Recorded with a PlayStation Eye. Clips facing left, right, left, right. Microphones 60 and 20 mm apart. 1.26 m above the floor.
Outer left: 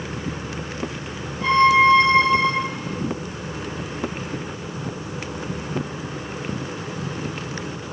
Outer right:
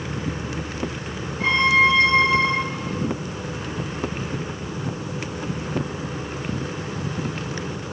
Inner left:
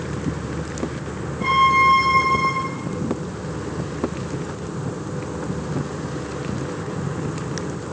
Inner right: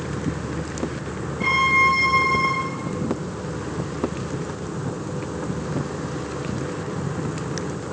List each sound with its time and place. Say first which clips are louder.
1.4 s a violin: outer left 3 dB, inner left 2 dB; 70° right (ahead or behind), 4.5 m